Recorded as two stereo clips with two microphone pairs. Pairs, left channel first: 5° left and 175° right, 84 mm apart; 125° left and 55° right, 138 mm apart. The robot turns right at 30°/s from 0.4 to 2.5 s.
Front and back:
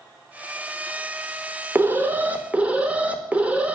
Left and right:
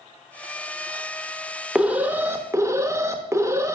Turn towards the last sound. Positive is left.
turn(degrees=-115)